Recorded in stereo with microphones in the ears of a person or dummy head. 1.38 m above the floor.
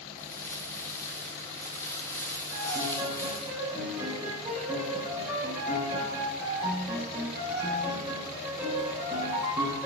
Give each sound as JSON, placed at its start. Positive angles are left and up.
{"t": 0.2, "sound": "crumpling", "side_deg": 15, "distance_m": 0.7}
{"t": 2.5, "sound": "a piano", "side_deg": -10, "distance_m": 3.5}